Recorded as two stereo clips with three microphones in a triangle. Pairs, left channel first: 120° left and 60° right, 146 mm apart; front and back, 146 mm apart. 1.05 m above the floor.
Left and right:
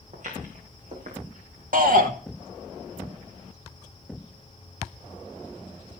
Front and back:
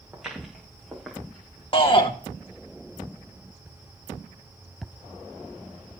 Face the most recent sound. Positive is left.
turn(degrees=-50)